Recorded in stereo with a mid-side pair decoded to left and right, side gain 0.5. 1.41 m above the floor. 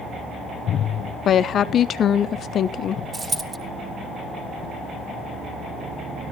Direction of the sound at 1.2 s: 50° left.